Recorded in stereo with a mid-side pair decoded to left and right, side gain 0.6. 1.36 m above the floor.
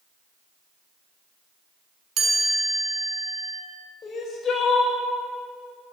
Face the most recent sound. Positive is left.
turn(degrees=35)